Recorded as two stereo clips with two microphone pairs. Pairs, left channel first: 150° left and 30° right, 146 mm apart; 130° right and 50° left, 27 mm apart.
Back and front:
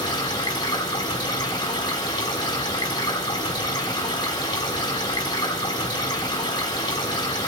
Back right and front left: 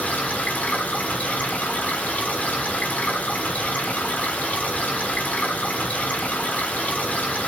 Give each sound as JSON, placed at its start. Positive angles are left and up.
{"t": 0.0, "sound": "running water", "azimuth_deg": -150, "distance_m": 5.5}